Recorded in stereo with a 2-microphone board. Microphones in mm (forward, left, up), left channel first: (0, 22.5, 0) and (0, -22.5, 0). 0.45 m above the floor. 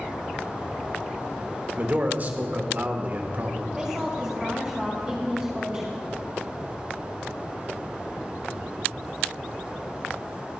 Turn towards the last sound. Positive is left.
turn(degrees=-15)  # may be behind; listen again after turning